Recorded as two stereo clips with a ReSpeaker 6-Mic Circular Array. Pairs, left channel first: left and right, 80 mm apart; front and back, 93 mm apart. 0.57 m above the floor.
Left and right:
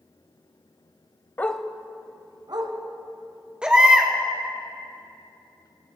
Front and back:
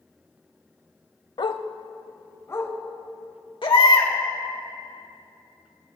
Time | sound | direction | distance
1.4 | a dog barking | 25° left | 0.6 m
3.6 | a baby crying | 10° right | 1.6 m